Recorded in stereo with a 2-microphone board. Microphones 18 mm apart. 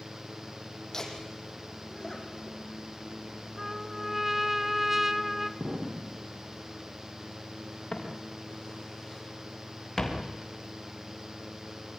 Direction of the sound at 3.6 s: 15° right (ahead or behind).